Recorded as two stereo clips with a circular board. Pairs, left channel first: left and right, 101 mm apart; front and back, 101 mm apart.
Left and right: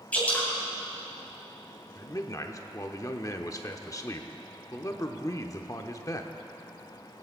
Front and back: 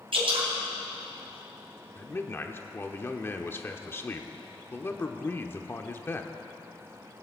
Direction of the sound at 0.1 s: 165° left.